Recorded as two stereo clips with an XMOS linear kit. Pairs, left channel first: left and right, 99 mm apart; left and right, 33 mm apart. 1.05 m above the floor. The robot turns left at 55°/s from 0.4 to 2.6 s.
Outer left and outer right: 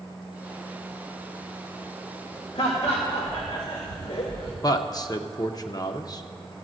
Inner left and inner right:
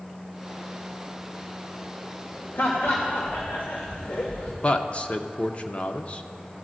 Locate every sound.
2.5 s laughter: 75° left (ahead or behind), 1.4 m
4.6 s a man speaking: 40° left (ahead or behind), 0.6 m